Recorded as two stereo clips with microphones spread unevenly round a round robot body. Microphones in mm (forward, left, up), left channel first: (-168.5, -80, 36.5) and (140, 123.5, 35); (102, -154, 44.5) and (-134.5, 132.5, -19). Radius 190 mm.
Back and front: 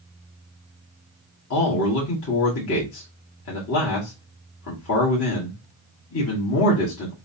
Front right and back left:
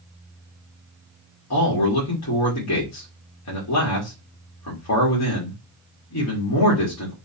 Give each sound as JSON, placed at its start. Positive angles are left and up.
{"t": 1.5, "sound": "a man speaking", "azimuth_deg": -100, "distance_m": 1.8}